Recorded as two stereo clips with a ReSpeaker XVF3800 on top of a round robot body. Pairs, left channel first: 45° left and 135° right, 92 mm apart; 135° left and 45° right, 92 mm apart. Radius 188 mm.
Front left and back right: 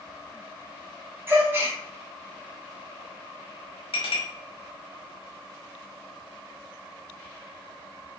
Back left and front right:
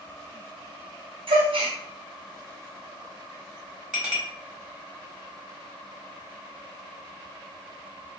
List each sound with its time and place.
1.3 s a gasp: 70° right, 0.6 m
3.9 s a clink: 40° left, 1.2 m